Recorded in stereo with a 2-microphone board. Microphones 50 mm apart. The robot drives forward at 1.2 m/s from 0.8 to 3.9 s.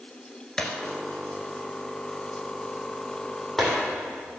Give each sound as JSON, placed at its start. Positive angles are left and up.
{"t": 0.6, "sound": "breaking glass", "side_deg": 10, "distance_m": 2.0}